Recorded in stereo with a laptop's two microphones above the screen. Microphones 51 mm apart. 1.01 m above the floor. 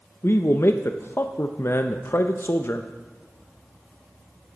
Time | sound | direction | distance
0.2 | a man speaking | 50° left (ahead or behind) | 0.6 m